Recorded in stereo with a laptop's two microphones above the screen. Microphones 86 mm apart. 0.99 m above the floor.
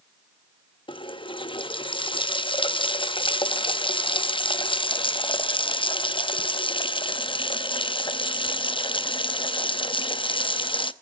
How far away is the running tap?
About 0.7 m.